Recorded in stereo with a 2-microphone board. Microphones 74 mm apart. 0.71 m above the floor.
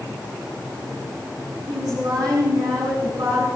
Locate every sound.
1.7 s a woman speaking: 60° right (ahead or behind), 7 m